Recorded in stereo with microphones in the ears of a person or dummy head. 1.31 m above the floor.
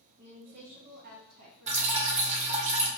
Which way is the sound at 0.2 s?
30° right (ahead or behind).